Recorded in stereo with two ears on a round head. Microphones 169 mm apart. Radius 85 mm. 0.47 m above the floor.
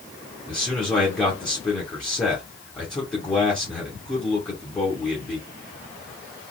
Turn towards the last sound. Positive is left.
turn(degrees=5)  # may be behind; listen again after turning